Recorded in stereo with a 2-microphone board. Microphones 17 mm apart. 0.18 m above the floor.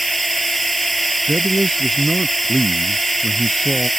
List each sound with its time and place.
0.0 s a drone: 10° left (ahead or behind)
1.3 s a man speaking: 35° left (ahead or behind)